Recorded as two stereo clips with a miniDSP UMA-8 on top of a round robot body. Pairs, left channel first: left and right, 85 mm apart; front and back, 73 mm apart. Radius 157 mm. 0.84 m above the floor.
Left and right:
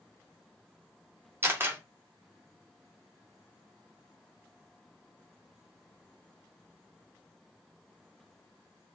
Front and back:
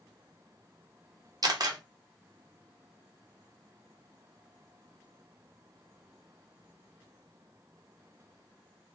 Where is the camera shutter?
150° right, 0.9 m.